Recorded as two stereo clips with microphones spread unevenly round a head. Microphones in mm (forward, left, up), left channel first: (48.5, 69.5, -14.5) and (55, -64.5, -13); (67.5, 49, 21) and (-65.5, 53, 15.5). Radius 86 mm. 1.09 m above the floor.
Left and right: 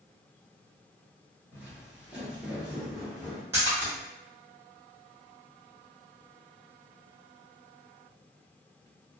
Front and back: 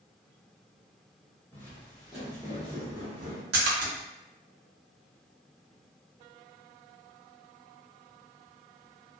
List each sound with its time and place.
1.5 s footsteps: 25° right, 1.1 m; by 3.4 s 175° right, 1.3 m
3.5 s a splash: 165° right, 0.7 m